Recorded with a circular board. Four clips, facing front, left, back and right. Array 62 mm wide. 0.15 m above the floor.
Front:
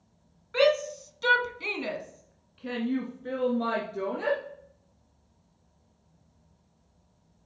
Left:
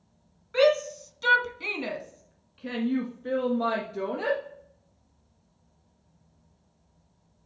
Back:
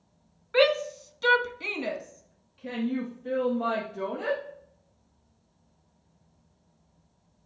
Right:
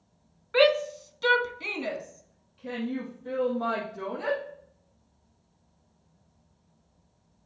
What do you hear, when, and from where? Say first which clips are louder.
0.5 s a shout: even, back 1 dB; 120° right, 1.2 m; by 4.4 s 60° left, 2.5 m